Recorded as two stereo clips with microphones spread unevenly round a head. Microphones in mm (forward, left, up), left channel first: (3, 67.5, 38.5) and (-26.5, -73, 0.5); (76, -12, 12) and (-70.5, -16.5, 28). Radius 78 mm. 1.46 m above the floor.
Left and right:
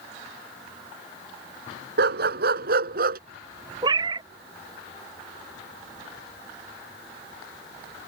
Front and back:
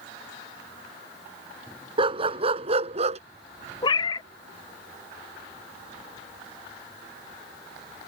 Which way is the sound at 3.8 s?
35° right.